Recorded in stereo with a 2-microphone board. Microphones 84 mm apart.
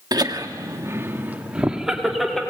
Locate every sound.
0.1 s laughter: 50° right (ahead or behind), 1.5 m; by 2.4 s 5° left (ahead or behind), 2.0 m